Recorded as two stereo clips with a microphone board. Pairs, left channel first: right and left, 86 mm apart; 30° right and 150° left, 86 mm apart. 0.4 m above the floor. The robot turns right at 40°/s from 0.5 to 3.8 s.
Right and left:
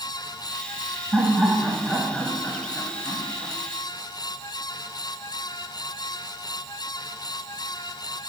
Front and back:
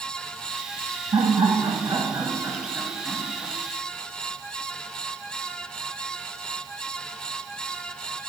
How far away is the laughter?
About 2.0 m.